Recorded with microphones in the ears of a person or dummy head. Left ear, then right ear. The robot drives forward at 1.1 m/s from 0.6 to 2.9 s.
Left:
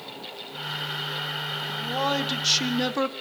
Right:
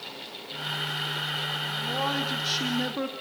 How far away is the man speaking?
About 3.5 m.